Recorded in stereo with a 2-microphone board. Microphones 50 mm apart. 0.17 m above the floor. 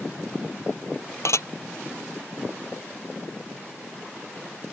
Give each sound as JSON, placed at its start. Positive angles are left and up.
{"t": 1.2, "sound": "dishes clattering", "side_deg": 70}